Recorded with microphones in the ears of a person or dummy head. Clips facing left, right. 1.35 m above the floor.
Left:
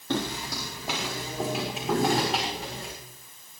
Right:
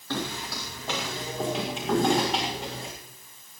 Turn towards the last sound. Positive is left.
turn(degrees=0)  # may be behind; listen again after turning